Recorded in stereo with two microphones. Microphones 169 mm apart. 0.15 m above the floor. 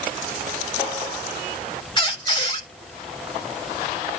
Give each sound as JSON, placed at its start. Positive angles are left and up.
{"t": 2.0, "sound": "a squeak", "side_deg": 25, "distance_m": 0.8}